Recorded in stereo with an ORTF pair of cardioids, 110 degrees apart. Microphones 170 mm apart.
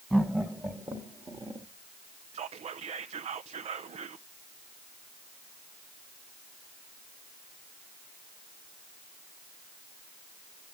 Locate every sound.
0.1 s laughter: 5° right, 1.8 m; by 1.7 s 30° right, 1.2 m
2.3 s whispering: 35° right, 0.6 m